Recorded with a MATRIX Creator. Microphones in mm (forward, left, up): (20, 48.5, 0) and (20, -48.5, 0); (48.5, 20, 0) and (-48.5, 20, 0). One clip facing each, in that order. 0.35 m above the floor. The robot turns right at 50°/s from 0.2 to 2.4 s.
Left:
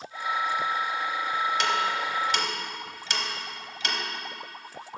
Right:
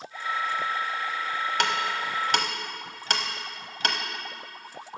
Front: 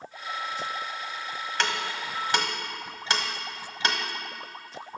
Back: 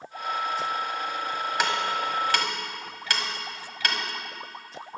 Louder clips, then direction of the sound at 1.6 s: Left 1 dB, back 3 dB; 105° right.